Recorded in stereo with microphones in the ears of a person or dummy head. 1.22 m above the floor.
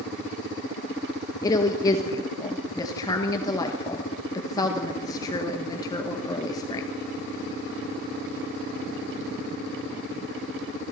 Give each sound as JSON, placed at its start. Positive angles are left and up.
{"t": 1.4, "sound": "a woman speaking", "side_deg": 25, "distance_m": 1.1}